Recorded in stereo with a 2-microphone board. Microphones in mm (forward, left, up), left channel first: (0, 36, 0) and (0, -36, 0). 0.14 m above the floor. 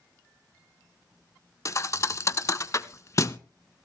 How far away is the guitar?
No guitar in this recording.